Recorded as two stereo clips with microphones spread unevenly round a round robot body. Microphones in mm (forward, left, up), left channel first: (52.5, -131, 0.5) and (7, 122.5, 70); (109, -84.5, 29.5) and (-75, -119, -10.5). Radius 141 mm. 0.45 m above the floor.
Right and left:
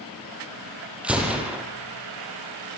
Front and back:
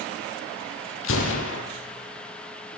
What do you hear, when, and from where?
1.0 s a gunshot: 15° left, 4.5 m